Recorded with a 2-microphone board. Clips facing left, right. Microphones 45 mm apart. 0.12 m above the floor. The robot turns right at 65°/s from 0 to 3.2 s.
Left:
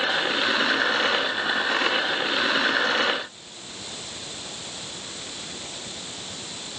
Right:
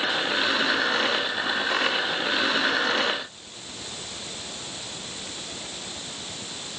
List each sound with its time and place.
Only background noise.